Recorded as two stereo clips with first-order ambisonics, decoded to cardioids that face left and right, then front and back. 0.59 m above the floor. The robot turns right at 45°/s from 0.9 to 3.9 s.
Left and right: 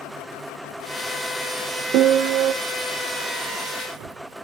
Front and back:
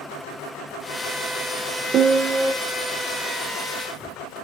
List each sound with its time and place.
1.9 s a piano: 125° right, 0.8 m; by 2.5 s 100° right, 0.8 m